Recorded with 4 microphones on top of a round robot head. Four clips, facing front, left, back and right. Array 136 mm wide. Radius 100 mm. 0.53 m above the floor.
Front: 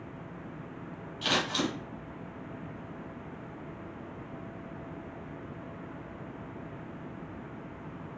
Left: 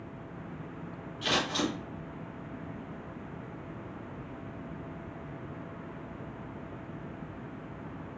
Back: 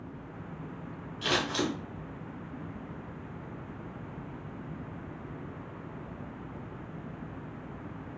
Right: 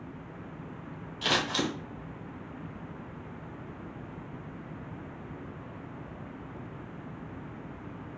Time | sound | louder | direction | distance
1.2 | scissors | right 1 dB, even | 85° right | 2.0 m